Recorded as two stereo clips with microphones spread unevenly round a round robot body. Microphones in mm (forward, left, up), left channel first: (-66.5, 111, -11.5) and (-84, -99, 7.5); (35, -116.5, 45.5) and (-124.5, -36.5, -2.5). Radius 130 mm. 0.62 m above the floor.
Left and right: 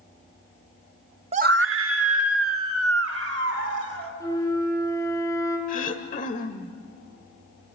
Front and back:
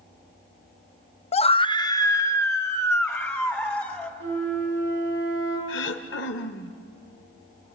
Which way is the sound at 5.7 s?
25° left.